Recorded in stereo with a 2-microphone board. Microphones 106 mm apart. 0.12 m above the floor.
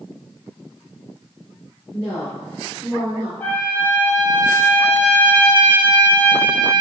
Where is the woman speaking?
10° left (ahead or behind), 1.7 m.